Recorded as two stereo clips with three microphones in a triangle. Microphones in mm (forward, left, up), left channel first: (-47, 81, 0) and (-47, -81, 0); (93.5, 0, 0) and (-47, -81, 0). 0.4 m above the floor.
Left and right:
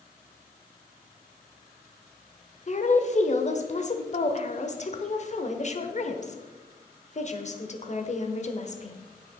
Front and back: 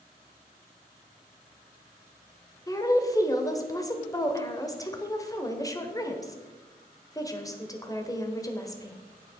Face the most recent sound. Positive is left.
turn(degrees=90)